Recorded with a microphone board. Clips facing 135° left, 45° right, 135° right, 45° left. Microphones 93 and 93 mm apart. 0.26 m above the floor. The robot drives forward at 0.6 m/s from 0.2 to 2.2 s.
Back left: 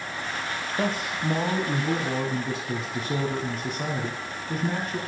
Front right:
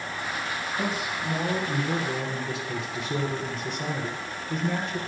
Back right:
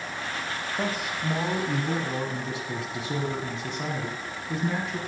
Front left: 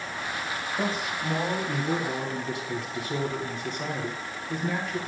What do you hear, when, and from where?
0.8 s a man speaking: 135° left, 1.3 m; by 5.0 s 155° left, 1.8 m